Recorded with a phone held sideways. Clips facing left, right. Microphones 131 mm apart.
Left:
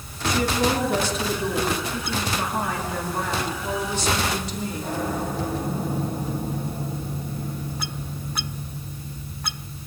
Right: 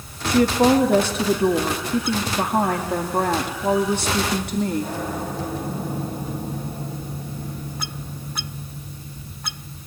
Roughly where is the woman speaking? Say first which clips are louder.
Right 6 dB; right.